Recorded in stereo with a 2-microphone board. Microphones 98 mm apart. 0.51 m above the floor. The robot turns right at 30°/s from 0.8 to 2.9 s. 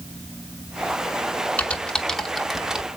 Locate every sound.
1.6 s typing on a keyboard: 15° left (ahead or behind), 0.9 m; by 2.9 s 10° right (ahead or behind), 0.9 m